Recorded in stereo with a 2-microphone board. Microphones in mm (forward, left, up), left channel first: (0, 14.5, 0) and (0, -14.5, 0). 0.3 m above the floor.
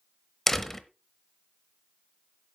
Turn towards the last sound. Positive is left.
turn(degrees=10)  # may be behind; listen again after turning